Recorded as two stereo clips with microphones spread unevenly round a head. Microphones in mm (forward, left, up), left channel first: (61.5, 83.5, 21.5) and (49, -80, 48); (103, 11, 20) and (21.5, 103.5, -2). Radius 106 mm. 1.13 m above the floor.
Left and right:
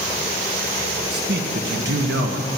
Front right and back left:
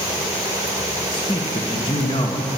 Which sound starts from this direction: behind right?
A man speaking, at 1.1 s.